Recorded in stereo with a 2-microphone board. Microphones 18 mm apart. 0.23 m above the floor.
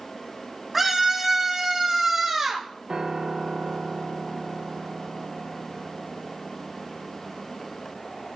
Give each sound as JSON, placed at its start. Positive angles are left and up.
{"t": 0.7, "sound": "a scream", "side_deg": -10, "distance_m": 2.0}
{"t": 2.9, "sound": "a piano", "side_deg": -50, "distance_m": 1.2}